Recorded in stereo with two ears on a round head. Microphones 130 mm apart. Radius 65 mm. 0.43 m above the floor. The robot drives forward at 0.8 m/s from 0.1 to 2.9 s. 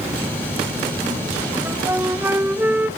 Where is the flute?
15° right (ahead or behind), 1.3 m.